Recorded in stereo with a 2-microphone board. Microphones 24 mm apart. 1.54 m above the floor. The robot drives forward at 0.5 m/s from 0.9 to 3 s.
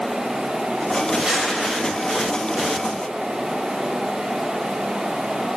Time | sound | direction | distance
1.2 | crumpling | 35° right (ahead or behind) | 7 m